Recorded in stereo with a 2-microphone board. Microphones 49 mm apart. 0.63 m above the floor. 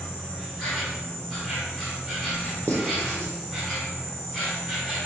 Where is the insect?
10° right (ahead or behind), 1.2 m.